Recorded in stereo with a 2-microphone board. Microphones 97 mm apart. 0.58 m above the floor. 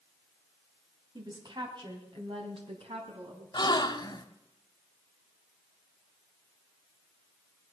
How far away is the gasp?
About 0.8 m.